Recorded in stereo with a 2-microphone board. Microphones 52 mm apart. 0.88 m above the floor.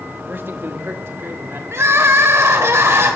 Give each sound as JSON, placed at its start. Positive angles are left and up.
{"t": 0.3, "sound": "a man speaking", "side_deg": -40, "distance_m": 1.3}
{"t": 1.7, "sound": "crying", "side_deg": -60, "distance_m": 1.8}